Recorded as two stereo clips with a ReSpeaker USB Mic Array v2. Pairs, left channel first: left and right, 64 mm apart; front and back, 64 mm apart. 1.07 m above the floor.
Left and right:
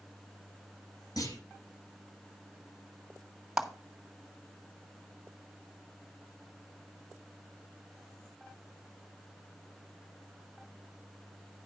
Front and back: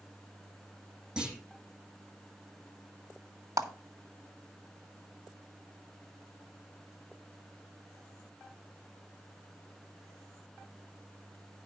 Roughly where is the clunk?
Left.